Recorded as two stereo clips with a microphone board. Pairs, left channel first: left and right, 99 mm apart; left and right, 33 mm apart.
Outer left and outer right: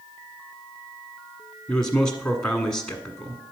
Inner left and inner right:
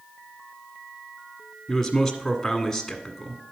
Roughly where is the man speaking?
Centre.